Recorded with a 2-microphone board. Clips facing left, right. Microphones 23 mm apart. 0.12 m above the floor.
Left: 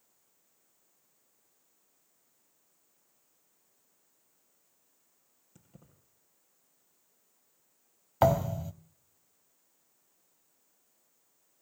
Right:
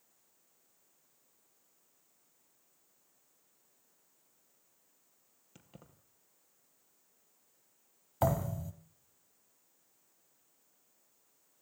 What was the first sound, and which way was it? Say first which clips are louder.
Keys jangling: right 2 dB; 45° right (ahead or behind).